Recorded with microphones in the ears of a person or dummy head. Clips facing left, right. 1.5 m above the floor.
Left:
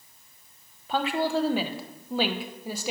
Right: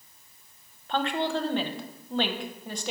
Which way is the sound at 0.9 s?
10° left (ahead or behind).